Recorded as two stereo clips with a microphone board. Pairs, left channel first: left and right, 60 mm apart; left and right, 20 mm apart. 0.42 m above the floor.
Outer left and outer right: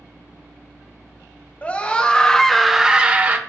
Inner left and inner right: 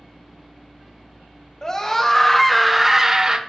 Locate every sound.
1.6 s a scream: 25° left (ahead or behind), 2 m; by 3.4 s 35° right (ahead or behind), 1.2 m